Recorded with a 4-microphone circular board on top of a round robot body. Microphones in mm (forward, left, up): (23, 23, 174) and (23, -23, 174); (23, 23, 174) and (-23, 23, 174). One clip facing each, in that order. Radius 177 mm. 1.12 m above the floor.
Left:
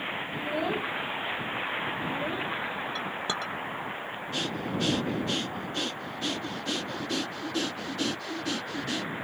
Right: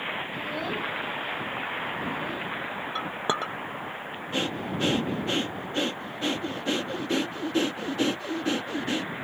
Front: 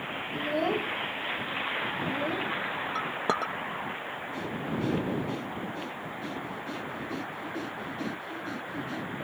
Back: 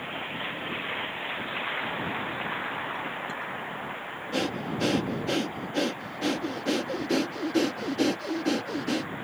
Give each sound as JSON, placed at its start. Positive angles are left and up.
{"t": 0.3, "sound": "a child speaking", "azimuth_deg": 15}
{"t": 3.0, "sound": "a clink", "azimuth_deg": -30}
{"t": 4.3, "sound": "breathing", "azimuth_deg": -155}